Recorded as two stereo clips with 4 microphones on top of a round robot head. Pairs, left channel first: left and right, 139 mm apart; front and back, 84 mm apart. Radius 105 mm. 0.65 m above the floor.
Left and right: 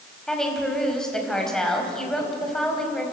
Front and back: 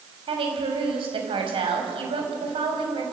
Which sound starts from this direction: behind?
A woman speaking, at 0.3 s.